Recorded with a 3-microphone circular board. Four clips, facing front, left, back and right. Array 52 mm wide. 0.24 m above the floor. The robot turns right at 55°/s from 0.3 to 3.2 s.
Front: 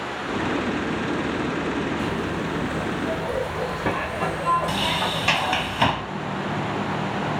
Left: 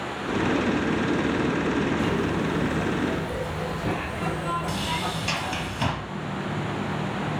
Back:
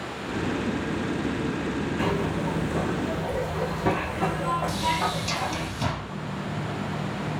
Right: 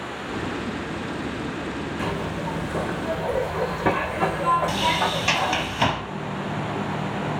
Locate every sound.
2.0 s a zipper: 155° right, 3.5 m; by 5.7 s 90° right, 3.5 m
4.7 s a sliding door: 35° right, 0.9 m